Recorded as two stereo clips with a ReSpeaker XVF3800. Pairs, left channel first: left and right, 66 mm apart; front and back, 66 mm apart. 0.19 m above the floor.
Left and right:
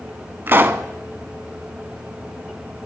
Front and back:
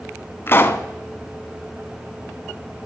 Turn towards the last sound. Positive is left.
turn(degrees=-45)